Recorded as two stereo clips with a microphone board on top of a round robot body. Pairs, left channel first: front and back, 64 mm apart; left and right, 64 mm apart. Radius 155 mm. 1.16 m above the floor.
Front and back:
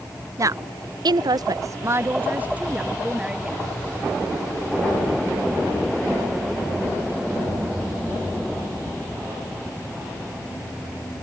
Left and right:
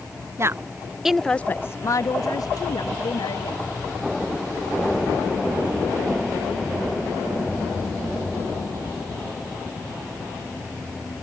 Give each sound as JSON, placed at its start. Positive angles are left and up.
{"t": 0.4, "sound": "a woman speaking", "azimuth_deg": -140}